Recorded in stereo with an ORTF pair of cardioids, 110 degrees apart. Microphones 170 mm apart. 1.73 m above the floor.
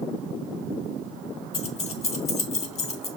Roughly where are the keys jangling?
Ahead left.